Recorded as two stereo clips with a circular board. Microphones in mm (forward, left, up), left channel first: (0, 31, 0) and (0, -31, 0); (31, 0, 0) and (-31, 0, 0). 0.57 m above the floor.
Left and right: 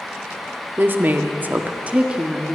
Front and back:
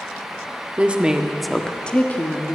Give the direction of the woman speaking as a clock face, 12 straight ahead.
4 o'clock.